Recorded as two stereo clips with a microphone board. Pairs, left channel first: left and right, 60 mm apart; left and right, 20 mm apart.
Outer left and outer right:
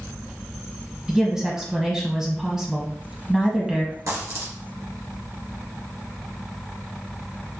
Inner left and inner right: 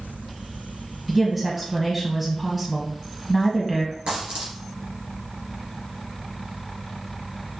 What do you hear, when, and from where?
1.1 s a woman speaking: 5° right (ahead or behind), 1.2 m
4.1 s a dropped coin: 70° right (ahead or behind), 2 m